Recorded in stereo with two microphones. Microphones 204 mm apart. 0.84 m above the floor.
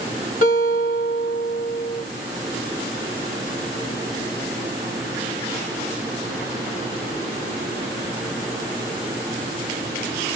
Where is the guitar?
40° left (ahead or behind), 1.6 m.